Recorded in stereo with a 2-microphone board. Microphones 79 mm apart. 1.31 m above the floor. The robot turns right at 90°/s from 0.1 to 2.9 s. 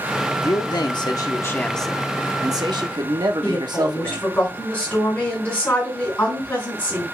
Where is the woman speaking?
30° left (ahead or behind), 6 m.